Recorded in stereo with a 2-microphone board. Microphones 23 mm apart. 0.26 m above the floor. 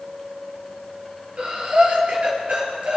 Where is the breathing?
60° right (ahead or behind), 4.5 m.